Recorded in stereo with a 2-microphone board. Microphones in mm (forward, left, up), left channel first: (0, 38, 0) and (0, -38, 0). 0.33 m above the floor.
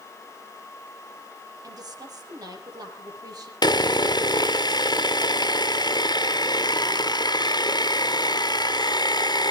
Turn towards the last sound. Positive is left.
turn(degrees=70)  # may be behind; listen again after turning